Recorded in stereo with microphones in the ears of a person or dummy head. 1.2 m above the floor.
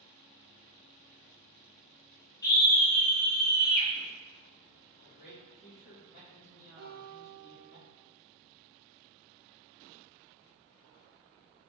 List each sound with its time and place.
2.4 s a scream: 15° left (ahead or behind), 0.9 m; by 3.9 s centre (ahead or behind), 1.6 m
5.0 s a man speaking: 5° right (ahead or behind), 1.9 m
6.8 s a guitar: 40° right (ahead or behind), 1.8 m